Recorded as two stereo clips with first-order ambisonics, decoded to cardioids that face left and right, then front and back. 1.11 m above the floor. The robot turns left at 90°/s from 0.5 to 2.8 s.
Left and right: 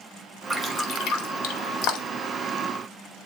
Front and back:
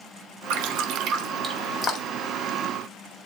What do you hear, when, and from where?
0.5 s dripping: straight behind, 2 m; by 2.3 s 25° left, 2 m